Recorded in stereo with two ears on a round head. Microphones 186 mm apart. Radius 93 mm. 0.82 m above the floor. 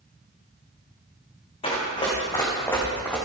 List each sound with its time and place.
1.6 s running footsteps: 25° left (ahead or behind), 3.5 m; by 3.2 s 5° left (ahead or behind), 3 m